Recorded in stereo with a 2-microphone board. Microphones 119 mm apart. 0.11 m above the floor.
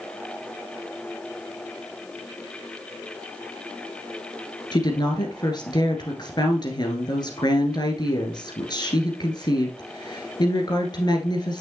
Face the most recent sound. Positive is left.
turn(degrees=35)  # may be behind; listen again after turning